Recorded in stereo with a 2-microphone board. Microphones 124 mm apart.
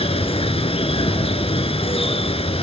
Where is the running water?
50° left (ahead or behind), 1.1 m.